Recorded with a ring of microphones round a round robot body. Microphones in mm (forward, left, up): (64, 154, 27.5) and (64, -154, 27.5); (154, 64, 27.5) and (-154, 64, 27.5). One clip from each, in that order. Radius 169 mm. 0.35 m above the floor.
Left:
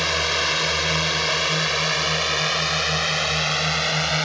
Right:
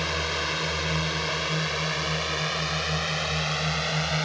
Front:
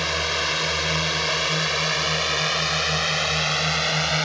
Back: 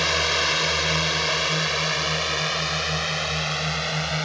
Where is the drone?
115° left; by 4.2 s 45° left.